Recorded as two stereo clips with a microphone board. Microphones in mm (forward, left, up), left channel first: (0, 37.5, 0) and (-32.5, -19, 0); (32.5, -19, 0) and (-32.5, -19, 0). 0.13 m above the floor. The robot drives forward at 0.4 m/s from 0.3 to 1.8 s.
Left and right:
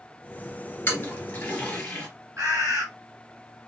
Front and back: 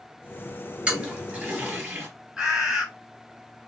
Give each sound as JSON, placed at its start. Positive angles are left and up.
{"t": 0.9, "sound": "a toilet flushing", "azimuth_deg": 115, "distance_m": 1.2}
{"t": 2.4, "sound": "a bird", "azimuth_deg": -100, "distance_m": 3.0}